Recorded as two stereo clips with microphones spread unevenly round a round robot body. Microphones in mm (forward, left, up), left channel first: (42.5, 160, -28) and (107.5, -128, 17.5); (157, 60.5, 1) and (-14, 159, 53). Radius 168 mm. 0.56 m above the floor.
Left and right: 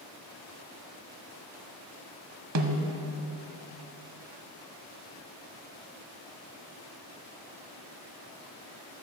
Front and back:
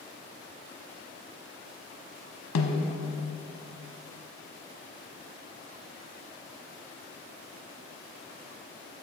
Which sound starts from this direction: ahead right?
A snare drum, at 2.5 s.